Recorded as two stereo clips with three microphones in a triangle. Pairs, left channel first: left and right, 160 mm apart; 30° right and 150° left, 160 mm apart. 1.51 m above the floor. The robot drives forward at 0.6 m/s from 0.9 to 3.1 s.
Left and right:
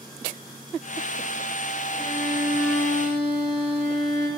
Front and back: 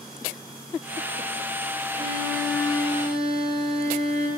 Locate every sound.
1.9 s a violin: 155° left, 1.7 m; by 4.3 s 160° left, 2.5 m